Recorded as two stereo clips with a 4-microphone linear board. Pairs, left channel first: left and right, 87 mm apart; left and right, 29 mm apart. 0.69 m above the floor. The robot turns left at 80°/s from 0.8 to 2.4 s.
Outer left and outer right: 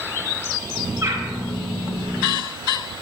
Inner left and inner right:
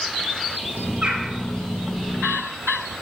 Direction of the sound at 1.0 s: 35° right (ahead or behind).